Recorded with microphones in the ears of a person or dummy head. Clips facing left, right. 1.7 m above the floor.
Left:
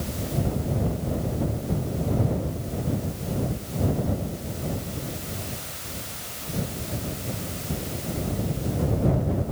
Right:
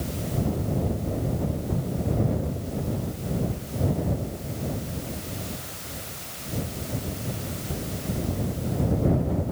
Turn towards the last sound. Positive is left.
No sound to turn to.